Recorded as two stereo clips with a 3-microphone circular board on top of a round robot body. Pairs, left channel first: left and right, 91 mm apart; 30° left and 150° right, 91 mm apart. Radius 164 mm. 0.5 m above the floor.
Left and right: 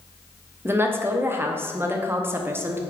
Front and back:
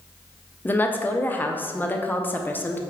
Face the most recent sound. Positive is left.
turn(degrees=-35)